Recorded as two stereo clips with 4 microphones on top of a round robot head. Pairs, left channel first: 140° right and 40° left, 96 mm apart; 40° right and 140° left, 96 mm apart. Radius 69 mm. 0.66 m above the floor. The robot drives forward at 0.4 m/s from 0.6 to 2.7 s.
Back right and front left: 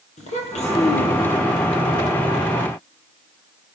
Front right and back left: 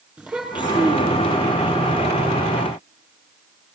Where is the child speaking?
140° right, 6 m.